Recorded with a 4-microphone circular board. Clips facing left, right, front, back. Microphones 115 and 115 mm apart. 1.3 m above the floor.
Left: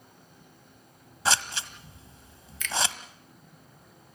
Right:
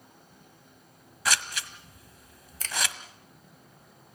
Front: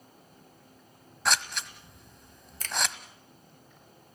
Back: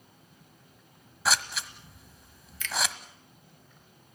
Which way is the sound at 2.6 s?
45° right.